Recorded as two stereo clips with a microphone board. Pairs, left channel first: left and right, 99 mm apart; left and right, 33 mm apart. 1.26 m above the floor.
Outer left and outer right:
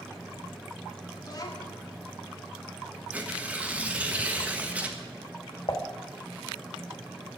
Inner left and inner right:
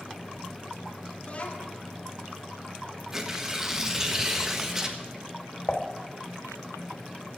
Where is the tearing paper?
15° right (ahead or behind), 1.3 m.